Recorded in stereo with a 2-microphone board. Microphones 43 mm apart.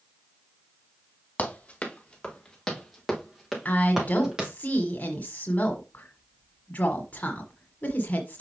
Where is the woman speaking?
35° left (ahead or behind), 1.3 m.